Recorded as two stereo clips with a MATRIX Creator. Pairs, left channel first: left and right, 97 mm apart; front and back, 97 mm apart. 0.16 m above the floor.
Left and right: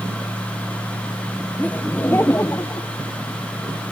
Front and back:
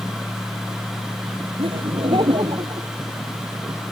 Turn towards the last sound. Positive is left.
turn(degrees=140)